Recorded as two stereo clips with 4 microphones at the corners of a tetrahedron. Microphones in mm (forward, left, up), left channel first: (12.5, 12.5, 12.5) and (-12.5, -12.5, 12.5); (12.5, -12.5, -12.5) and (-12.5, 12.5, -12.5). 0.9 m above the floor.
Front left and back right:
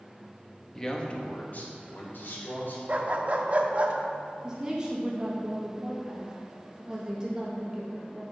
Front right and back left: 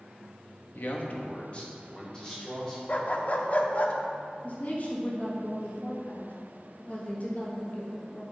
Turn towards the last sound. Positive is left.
turn(degrees=-75)